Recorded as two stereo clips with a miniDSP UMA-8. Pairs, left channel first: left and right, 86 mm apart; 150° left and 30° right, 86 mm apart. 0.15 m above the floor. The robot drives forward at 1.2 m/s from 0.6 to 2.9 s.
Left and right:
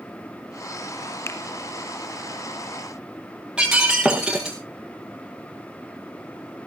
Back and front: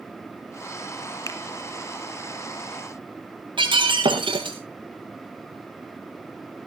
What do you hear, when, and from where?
1.3 s a finger snap: 130° left, 1.7 m; by 1.4 s 135° left, 1.8 m
3.6 s breaking glass: 10° right, 4.5 m